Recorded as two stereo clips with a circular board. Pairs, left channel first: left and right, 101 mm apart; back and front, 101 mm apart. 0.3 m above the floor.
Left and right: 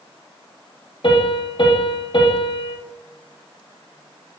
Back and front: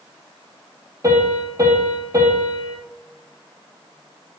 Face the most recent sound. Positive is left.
turn(degrees=55)